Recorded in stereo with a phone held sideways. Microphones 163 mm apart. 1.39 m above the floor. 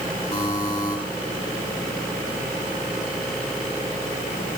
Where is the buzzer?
45° left (ahead or behind), 4.5 m.